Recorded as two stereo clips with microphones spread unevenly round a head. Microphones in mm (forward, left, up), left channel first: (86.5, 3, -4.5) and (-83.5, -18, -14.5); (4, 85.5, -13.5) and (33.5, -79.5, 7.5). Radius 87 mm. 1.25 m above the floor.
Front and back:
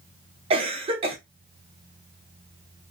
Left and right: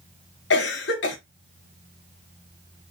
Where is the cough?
130° left, 0.8 m.